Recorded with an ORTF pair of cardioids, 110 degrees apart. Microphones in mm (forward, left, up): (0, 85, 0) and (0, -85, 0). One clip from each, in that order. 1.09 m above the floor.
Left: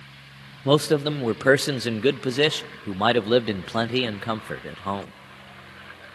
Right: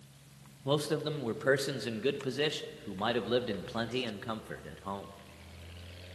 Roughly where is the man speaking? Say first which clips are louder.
Left 11 dB; ahead left.